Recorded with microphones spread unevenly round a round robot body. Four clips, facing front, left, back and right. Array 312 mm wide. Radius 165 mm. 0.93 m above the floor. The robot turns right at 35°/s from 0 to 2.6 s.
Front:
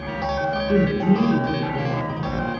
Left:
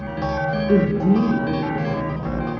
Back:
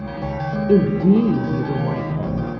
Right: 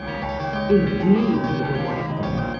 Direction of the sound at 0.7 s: 170° left.